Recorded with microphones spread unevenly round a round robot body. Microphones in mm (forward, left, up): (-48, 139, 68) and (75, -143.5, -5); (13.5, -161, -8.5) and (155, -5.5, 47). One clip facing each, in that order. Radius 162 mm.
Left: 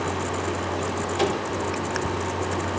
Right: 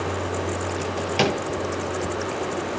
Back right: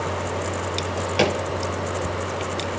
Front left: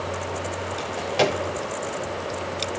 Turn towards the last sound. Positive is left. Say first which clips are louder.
# right 1 dB, even
turn(degrees=-70)